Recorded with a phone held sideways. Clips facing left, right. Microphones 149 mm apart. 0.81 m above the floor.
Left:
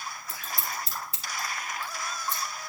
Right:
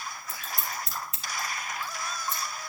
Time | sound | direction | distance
0.3 | scissors | 30° left (ahead or behind) | 2.5 m